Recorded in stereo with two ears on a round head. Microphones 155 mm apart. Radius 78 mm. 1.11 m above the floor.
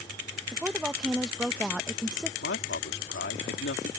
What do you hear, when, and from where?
0.5 s a woman speaking: 5° right (ahead or behind)
2.4 s a man speaking: 70° left (ahead or behind)